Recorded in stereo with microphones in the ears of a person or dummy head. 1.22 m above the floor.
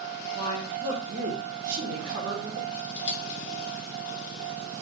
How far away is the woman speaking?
About 0.7 m.